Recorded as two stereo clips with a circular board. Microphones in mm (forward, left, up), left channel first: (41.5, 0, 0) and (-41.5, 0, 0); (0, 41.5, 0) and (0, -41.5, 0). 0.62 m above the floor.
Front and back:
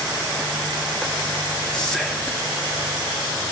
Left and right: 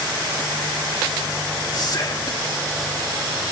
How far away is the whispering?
About 1.1 m.